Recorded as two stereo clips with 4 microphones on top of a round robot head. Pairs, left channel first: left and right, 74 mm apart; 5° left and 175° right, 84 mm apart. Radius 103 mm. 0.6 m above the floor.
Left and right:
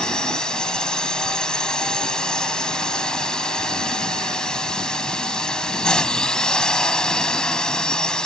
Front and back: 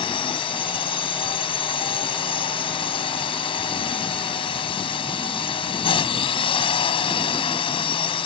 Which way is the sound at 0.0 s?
10° left.